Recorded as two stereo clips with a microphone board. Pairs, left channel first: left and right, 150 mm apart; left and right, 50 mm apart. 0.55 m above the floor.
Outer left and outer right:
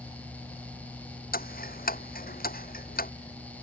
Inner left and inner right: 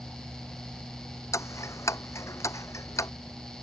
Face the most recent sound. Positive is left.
turn(degrees=80)